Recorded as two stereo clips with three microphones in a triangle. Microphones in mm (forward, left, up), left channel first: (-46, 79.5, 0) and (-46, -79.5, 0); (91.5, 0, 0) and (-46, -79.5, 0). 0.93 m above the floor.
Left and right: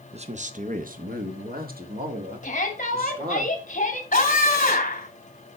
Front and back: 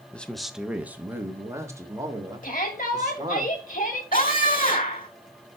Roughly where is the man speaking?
Ahead right.